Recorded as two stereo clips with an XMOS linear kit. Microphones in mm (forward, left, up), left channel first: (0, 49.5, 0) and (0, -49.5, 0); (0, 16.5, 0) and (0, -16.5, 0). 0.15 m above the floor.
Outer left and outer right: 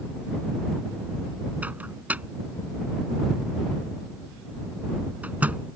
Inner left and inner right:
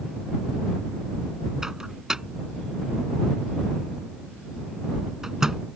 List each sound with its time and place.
1.6 s a microwave: 15° right (ahead or behind)